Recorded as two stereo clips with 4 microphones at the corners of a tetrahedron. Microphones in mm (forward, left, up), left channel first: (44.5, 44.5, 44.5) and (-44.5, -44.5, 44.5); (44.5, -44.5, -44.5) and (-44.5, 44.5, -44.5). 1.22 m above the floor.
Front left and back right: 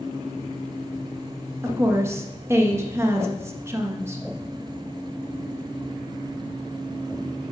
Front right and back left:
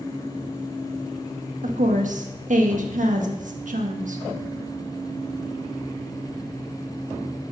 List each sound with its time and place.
1.6 s a woman speaking: 155° left, 1.4 m